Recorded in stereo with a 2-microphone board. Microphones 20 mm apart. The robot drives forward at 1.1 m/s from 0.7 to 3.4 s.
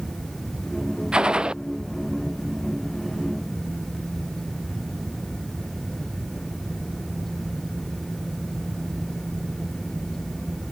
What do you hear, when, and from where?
1.1 s a gunshot: 50° right (ahead or behind)